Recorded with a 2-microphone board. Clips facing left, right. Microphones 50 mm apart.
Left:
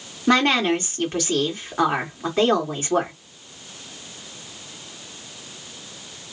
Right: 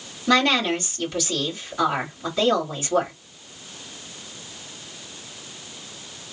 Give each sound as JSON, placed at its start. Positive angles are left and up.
{"t": 0.3, "sound": "a woman speaking", "side_deg": 40, "distance_m": 1.7}